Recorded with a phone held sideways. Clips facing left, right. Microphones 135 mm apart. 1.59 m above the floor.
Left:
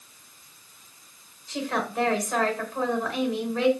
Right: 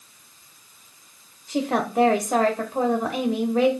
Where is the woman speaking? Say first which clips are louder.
Right 5 dB; 35° right (ahead or behind), 1.2 m.